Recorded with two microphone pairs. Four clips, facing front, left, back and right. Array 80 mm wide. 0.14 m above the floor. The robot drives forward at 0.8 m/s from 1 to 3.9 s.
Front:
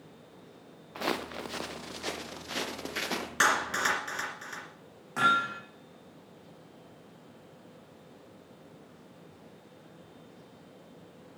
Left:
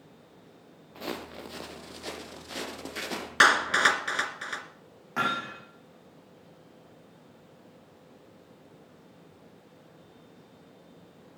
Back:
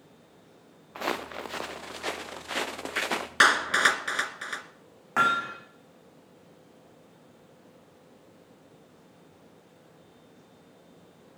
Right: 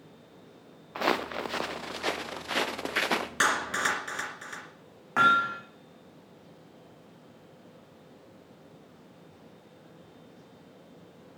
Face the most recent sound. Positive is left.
turn(degrees=-145)